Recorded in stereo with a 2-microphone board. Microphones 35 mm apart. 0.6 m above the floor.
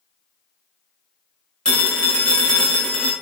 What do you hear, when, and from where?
1.6 s a phone ringing: 25° left (ahead or behind), 1.5 m